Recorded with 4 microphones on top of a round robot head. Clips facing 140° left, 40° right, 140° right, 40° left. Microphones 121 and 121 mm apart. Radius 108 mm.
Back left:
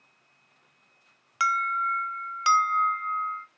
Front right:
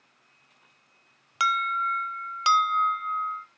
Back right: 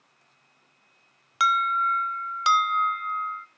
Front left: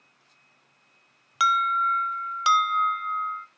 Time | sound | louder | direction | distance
1.4 | an alarm | even, even | 45° right | 1.0 m